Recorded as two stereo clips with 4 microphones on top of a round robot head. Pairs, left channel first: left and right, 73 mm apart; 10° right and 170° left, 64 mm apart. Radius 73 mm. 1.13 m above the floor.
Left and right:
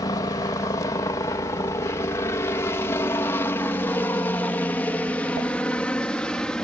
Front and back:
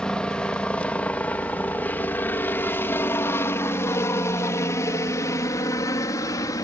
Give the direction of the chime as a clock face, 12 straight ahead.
I don't hear a chime.